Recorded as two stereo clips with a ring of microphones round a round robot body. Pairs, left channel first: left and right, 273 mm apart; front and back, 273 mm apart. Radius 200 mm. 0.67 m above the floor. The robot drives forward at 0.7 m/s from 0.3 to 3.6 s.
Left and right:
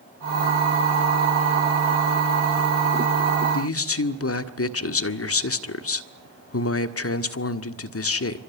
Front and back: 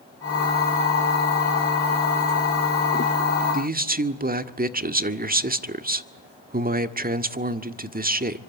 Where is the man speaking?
120° left, 1.8 m; by 8.4 s 125° left, 1.8 m.